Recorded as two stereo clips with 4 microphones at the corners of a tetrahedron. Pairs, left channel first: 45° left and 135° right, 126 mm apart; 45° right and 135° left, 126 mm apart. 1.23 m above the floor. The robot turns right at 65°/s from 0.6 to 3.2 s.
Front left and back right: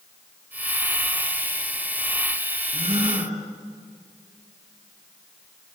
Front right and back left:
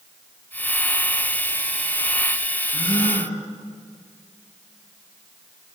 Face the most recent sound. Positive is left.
turn(degrees=-75)